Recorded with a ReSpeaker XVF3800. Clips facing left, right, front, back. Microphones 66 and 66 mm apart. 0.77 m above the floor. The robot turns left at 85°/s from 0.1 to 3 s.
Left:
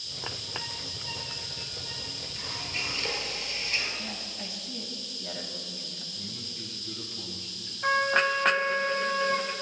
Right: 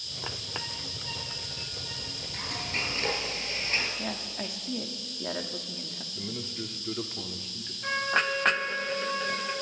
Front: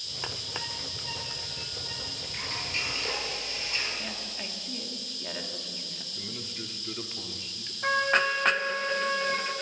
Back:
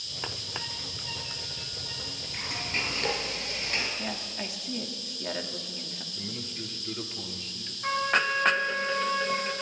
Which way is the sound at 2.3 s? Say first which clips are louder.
Right 3 dB, back 2 dB; 90° right.